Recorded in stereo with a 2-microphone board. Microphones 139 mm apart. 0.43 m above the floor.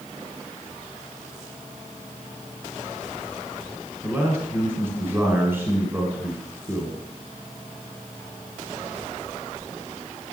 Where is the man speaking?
15° right (ahead or behind), 1.8 m.